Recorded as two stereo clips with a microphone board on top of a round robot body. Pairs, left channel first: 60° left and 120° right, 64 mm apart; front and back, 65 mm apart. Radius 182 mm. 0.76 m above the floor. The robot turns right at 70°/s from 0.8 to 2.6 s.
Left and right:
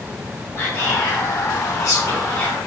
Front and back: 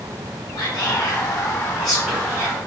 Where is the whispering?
10° left, 1.0 m; by 2.5 s 135° left, 1.0 m.